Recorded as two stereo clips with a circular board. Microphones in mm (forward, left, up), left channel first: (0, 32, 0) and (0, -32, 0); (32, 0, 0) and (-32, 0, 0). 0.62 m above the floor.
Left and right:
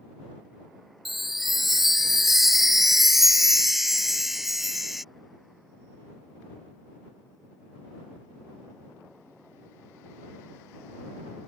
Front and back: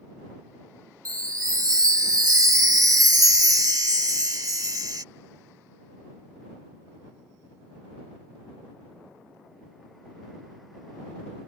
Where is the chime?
175° right.